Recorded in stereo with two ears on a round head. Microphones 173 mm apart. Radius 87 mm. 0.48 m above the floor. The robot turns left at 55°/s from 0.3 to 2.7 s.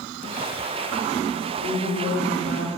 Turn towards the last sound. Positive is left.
turn(degrees=-25)